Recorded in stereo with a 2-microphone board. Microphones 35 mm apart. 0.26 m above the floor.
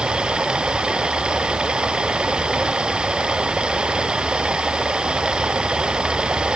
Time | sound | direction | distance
0.0 | running water | 25° right (ahead or behind) | ?